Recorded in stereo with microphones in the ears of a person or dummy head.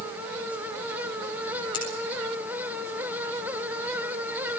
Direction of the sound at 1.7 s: 30° left (ahead or behind).